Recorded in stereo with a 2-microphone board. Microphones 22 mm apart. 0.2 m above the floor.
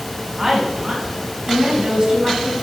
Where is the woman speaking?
20° right (ahead or behind), 1.8 m; by 2.5 s 50° right (ahead or behind), 3.5 m.